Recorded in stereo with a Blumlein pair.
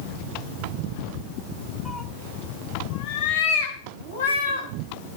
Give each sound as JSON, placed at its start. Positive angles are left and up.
{"t": 1.9, "sound": "a cat meowing", "azimuth_deg": 5, "distance_m": 1.4}